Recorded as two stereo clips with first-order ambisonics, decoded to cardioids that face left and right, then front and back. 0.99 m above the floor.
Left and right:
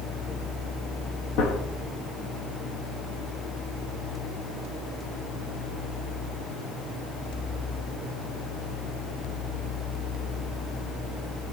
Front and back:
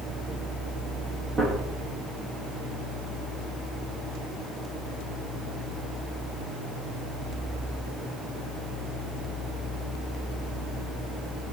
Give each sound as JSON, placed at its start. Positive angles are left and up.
{"t": 1.4, "sound": "a gunshot", "azimuth_deg": 115, "distance_m": 0.6}